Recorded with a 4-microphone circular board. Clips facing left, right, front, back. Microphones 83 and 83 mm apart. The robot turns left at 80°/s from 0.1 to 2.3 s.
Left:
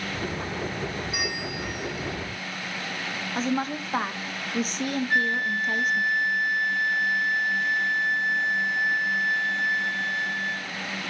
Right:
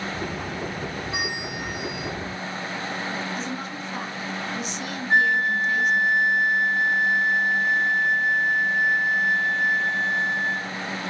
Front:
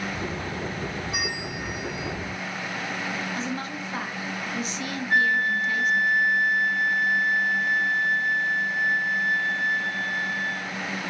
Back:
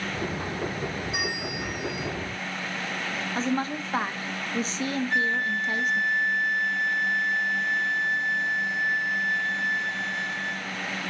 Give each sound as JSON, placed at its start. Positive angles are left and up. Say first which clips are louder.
{"t": 1.1, "sound": "a bell", "louder": "right 1 dB, even", "azimuth_deg": -25, "distance_m": 6.0}
{"t": 3.4, "sound": "a woman speaking", "louder": "left 4 dB, back 4 dB", "azimuth_deg": 130, "distance_m": 1.2}
{"t": 5.1, "sound": "a flute", "louder": "right 8 dB, front 8 dB", "azimuth_deg": -30, "distance_m": 1.3}